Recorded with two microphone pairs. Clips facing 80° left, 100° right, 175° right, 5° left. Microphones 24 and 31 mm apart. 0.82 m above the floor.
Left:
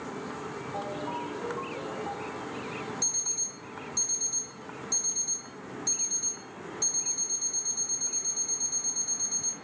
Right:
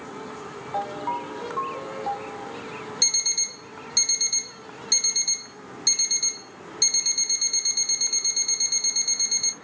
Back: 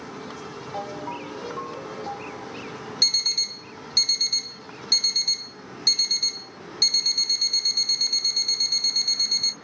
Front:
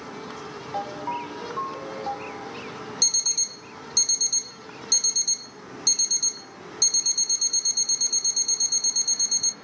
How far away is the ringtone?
About 2.5 m.